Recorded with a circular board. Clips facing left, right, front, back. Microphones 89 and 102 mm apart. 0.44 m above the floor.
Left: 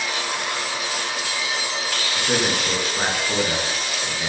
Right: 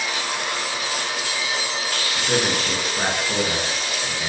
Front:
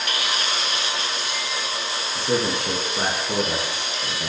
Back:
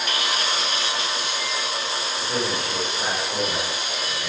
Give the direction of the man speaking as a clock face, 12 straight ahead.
12 o'clock.